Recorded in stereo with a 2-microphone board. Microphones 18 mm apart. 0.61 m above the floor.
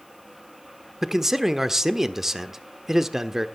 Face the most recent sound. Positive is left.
turn(degrees=-25)  # may be behind; listen again after turning